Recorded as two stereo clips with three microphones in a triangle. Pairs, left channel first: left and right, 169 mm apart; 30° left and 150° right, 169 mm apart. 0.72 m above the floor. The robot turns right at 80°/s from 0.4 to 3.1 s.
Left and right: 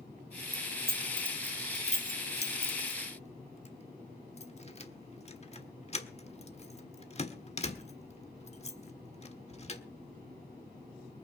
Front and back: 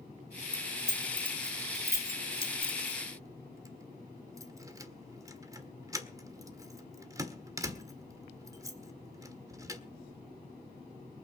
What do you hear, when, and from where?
0.5 s keys jangling: 65° right, 1.5 m; by 9.8 s 140° left, 1.5 m